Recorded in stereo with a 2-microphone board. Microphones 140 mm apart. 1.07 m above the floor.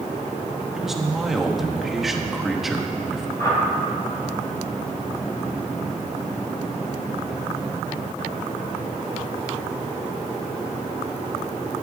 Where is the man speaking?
Centre (ahead or behind), 1.3 m.